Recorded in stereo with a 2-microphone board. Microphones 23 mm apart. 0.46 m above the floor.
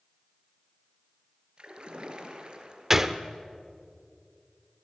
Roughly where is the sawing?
No sawing in this recording.